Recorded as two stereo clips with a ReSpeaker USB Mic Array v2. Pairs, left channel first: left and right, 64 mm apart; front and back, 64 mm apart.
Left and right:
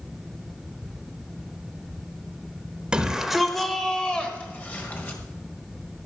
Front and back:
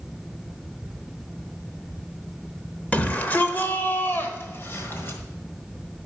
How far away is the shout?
About 1.1 m.